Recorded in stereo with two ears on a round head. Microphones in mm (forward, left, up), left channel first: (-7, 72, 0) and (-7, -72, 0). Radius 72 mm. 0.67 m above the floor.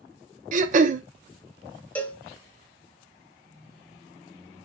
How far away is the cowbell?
About 0.8 m.